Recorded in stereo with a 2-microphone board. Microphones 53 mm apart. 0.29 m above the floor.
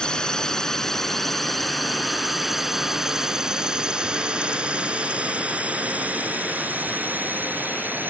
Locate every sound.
0.0 s a drone: 15° left (ahead or behind); by 8.1 s 35° right (ahead or behind)